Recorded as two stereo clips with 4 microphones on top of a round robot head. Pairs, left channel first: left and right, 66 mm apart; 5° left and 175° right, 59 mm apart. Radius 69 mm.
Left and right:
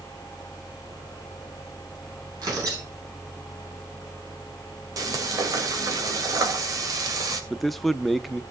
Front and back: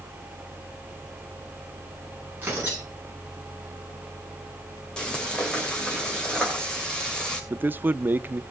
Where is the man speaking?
175° left, 0.7 m.